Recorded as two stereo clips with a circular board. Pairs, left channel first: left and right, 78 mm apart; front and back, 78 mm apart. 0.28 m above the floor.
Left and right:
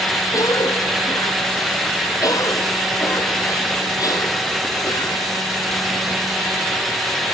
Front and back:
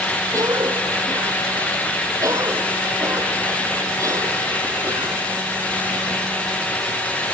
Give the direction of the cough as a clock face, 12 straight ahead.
8 o'clock.